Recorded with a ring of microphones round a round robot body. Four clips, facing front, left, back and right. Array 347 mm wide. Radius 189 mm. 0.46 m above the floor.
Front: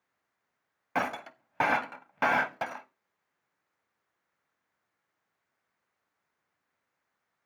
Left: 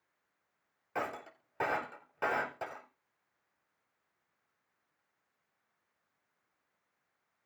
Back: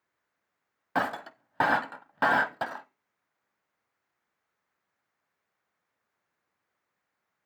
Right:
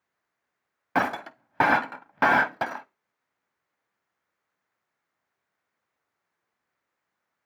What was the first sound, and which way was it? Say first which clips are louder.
Breaking glass: right 12 dB, back 2 dB; 100° right.